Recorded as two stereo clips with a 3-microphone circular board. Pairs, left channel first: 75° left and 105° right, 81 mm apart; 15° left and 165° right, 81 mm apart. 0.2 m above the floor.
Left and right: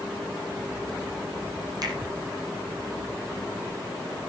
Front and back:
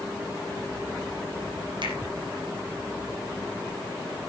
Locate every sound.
1.8 s a finger snap: 145° right, 6 m